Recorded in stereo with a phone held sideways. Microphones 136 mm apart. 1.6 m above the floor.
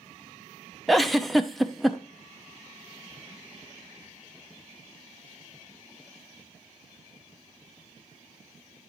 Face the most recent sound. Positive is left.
turn(degrees=0)  # may be behind; listen again after turning